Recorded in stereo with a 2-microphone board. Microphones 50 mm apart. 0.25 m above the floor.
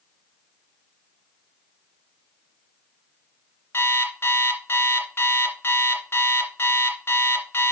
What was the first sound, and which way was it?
An alarm clock, 50° left (ahead or behind).